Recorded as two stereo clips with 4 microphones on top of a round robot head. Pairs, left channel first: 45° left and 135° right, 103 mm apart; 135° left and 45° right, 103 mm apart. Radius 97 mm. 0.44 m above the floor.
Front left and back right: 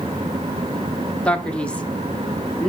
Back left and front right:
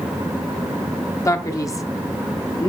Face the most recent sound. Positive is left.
turn(degrees=115)